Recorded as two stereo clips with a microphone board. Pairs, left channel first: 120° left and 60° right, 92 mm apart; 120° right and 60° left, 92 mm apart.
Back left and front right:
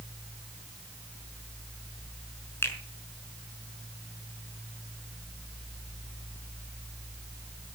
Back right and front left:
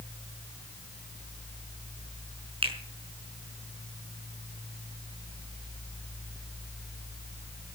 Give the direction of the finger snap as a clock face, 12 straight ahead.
10 o'clock.